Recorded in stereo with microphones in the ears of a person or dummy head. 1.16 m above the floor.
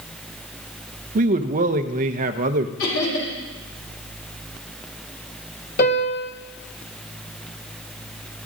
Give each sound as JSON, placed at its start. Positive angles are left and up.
{"t": 1.1, "sound": "a man speaking", "side_deg": -40, "distance_m": 0.6}
{"t": 2.8, "sound": "laughter", "side_deg": 85, "distance_m": 5.5}
{"t": 5.8, "sound": "a piano", "side_deg": 50, "distance_m": 1.6}